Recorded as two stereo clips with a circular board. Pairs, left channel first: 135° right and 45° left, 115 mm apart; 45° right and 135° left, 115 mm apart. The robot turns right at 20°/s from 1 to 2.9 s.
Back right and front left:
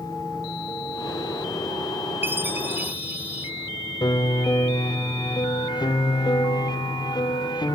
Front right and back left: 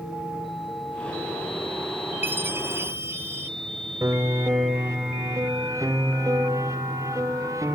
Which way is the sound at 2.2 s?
90° left.